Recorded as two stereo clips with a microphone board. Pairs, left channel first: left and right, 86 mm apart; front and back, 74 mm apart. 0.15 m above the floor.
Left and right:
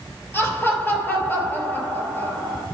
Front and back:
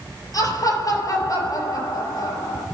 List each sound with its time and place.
0.3 s laughter: 25° left, 4 m